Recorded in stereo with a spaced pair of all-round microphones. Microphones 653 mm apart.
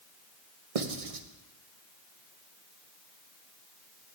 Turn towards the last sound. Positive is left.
turn(degrees=-60)  # may be behind; listen again after turning